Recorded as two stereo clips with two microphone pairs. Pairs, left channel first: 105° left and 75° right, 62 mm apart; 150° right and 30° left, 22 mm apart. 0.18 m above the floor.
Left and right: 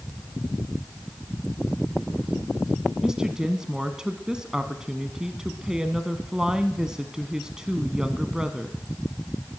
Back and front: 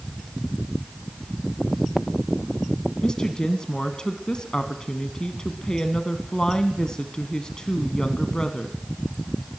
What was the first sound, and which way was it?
A woman speaking, 145° right.